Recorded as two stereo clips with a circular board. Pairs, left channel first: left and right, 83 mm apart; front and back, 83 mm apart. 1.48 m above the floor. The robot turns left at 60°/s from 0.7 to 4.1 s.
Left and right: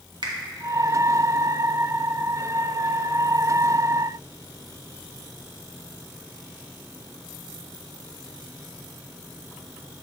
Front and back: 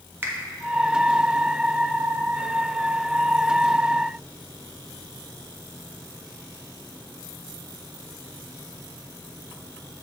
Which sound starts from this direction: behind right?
A finger snap, at 0.2 s.